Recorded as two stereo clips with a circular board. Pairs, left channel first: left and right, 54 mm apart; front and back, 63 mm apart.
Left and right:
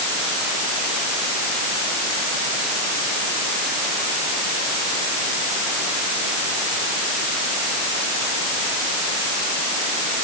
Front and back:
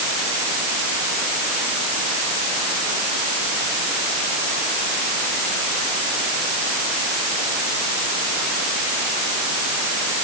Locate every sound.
Only background noise.